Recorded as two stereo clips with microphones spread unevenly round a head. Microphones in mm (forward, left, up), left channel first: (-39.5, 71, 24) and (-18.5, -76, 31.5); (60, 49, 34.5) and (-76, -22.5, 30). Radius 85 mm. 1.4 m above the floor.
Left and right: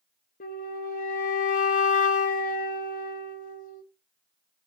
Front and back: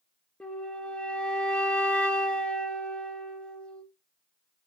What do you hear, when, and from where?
0.4 s a flute: 110° left, 1.0 m